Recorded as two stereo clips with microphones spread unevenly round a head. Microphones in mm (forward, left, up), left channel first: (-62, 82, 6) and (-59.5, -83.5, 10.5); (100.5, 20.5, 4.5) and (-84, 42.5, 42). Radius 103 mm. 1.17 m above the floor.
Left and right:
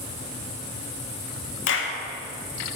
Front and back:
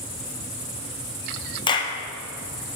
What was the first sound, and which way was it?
A clap, 60° left.